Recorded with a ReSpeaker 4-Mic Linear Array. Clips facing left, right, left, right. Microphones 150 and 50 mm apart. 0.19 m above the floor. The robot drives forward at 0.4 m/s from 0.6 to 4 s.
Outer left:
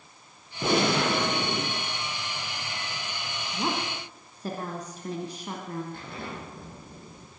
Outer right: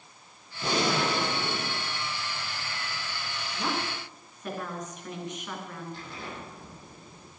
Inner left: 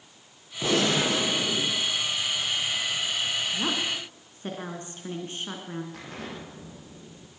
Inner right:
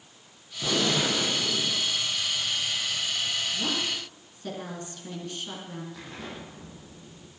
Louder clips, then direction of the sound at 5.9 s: Outer left 2 dB, inner left 1 dB; 55° left (ahead or behind).